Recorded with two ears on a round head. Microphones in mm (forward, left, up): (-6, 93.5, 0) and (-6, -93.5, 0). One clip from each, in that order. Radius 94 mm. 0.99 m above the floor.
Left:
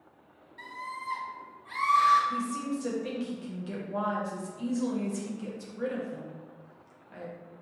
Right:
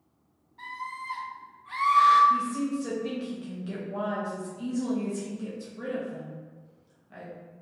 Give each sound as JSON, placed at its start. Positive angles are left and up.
{"t": 0.6, "sound": "a scream", "side_deg": 65, "distance_m": 1.5}
{"t": 2.3, "sound": "a woman speaking", "side_deg": 15, "distance_m": 0.6}